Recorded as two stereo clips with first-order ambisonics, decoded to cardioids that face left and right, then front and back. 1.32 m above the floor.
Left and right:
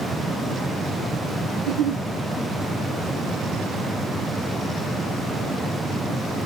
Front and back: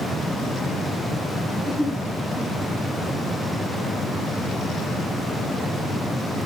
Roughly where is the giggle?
Right.